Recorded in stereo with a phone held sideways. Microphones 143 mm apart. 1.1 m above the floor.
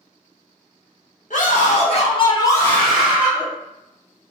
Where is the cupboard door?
I don't hear a cupboard door.